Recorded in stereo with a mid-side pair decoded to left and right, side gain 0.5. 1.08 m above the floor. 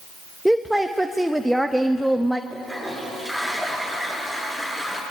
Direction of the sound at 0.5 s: 5° right.